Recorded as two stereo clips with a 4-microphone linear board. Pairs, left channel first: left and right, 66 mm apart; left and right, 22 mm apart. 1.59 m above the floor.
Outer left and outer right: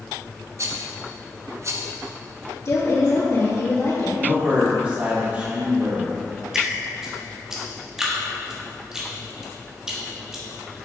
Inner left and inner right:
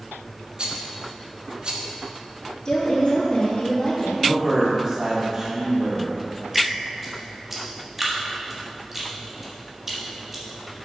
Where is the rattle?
45° right (ahead or behind), 0.9 m.